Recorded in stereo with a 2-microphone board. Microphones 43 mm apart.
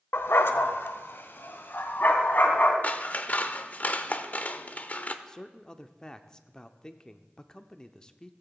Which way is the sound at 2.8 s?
40° left (ahead or behind).